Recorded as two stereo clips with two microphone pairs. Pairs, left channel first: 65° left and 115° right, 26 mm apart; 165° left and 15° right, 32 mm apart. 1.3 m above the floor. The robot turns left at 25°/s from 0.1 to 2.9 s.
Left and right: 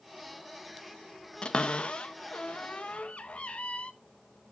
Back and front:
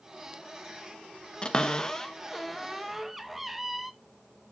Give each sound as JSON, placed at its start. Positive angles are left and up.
{"t": 1.4, "sound": "a cupboard door", "azimuth_deg": 110, "distance_m": 0.7}